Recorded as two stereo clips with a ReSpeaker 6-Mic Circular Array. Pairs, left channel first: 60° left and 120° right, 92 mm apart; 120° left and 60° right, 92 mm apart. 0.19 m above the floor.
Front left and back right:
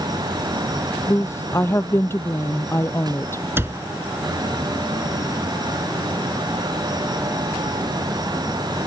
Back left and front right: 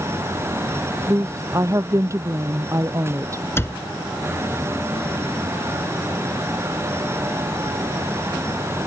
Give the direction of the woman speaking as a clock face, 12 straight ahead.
12 o'clock.